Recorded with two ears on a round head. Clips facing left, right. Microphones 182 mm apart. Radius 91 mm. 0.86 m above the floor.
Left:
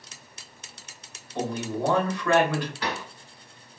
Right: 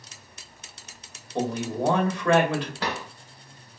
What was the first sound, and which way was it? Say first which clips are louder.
A man speaking: right 2 dB; 20° right (ahead or behind).